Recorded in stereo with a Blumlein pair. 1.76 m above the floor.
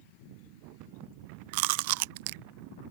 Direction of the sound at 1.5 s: 50° right.